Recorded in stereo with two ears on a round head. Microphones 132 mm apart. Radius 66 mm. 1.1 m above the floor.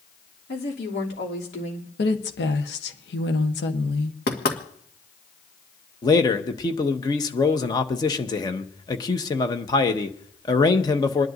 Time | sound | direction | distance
0.5 | a woman speaking | 80° left | 3 m
2.0 | a woman speaking | 90° left | 1.2 m
4.3 | knocking | 75° left (ahead or behind) | 1.8 m
6.0 | a man speaking | 25° left (ahead or behind) | 0.9 m